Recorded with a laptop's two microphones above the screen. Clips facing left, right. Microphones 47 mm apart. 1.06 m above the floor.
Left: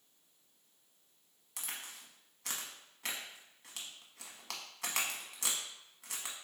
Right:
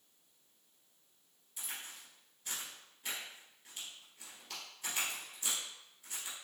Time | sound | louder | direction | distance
1.6 | a crack | left 1 dB | 85° left | 0.9 m